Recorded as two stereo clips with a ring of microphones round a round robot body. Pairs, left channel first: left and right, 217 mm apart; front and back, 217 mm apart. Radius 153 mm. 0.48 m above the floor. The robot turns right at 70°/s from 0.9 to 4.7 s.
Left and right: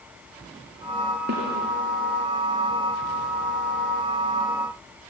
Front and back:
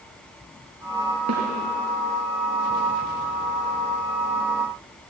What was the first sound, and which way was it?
A snare drum, 150° right.